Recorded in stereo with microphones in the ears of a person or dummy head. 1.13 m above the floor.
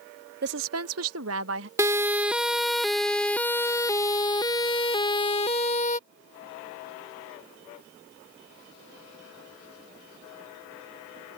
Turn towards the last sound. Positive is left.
turn(degrees=35)  # may be behind; listen again after turning